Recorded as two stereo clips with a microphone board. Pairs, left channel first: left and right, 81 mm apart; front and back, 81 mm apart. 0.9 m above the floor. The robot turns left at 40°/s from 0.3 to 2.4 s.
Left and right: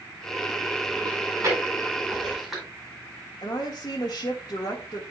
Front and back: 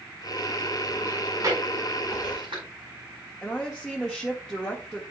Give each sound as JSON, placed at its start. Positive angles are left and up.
{"t": 1.1, "sound": "chewing", "azimuth_deg": -125, "distance_m": 4.0}
{"t": 3.4, "sound": "a woman speaking", "azimuth_deg": 95, "distance_m": 1.2}